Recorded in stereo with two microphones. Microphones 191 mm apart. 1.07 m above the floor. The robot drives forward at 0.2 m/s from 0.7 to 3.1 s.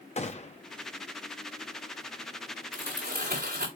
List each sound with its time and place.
0.2 s a gunshot: 35° left (ahead or behind), 0.9 m
2.7 s crumpling: 60° right (ahead or behind), 4.5 m; by 3.7 s 55° right (ahead or behind), 4.5 m